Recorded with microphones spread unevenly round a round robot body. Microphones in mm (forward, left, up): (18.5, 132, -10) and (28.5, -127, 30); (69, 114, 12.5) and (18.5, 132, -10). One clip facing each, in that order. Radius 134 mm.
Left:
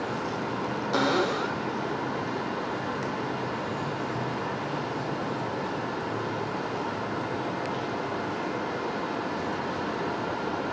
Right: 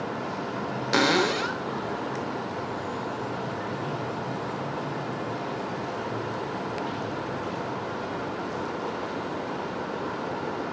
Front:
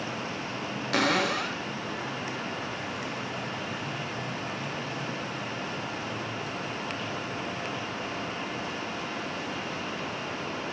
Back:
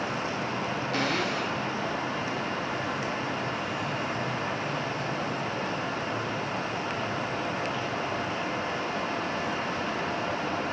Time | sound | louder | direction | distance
0.9 | a cupboard door | right 2 dB, front 5 dB | 35° right | 0.8 m